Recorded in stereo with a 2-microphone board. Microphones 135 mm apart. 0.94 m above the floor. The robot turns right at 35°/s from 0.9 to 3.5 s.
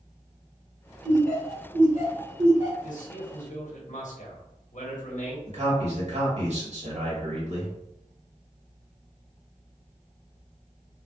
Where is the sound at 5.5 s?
55° right (ahead or behind), 1.4 m.